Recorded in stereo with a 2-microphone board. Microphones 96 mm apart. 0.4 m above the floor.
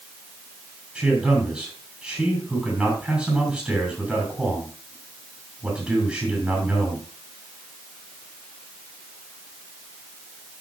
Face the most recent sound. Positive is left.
turn(degrees=-10)  # may be behind; listen again after turning